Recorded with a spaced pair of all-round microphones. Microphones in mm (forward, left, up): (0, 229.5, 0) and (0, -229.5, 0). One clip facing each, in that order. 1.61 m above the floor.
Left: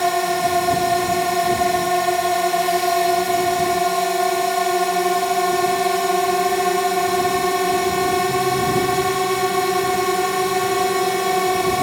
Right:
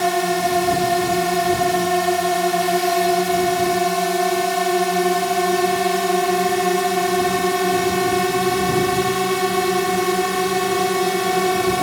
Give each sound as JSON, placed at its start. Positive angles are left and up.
{"t": 0.0, "sound": "a drone", "side_deg": -30}